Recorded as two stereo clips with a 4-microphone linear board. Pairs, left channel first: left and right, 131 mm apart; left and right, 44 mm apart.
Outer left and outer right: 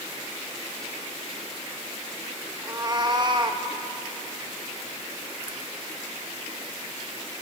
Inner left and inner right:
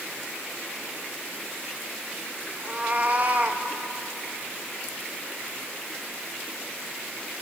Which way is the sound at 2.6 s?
35° right (ahead or behind).